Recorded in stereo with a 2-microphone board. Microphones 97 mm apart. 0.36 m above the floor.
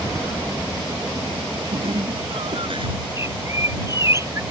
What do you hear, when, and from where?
1.7 s laughter: 70° right (ahead or behind); by 3.0 s 60° right (ahead or behind)
3.2 s a bird: 30° right (ahead or behind)